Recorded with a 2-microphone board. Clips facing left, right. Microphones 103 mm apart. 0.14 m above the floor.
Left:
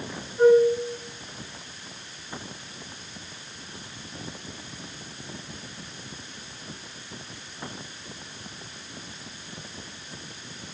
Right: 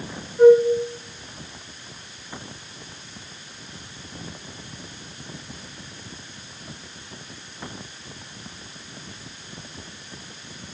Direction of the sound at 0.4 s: 30° left (ahead or behind).